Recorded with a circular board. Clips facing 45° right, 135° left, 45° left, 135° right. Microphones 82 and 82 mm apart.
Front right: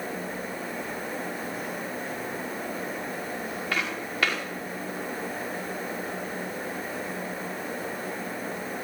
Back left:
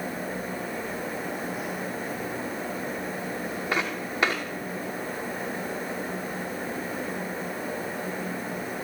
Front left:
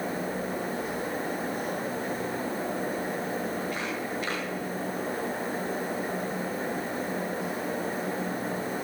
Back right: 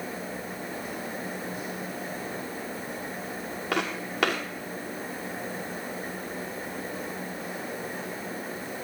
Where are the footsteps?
155° right, 4.5 m.